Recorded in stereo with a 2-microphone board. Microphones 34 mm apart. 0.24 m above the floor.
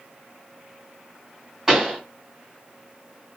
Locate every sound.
1.7 s a pop: 15° right (ahead or behind), 2.0 m